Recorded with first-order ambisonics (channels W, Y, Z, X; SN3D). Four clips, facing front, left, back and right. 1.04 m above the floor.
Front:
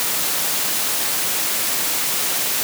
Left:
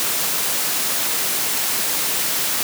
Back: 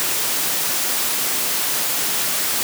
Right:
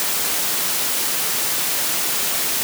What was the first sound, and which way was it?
Only background noise.